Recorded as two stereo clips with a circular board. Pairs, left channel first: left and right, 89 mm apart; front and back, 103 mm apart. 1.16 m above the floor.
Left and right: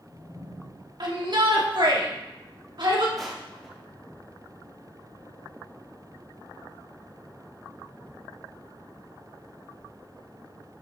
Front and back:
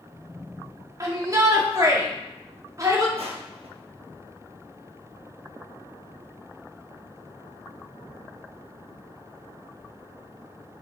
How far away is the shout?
About 2 m.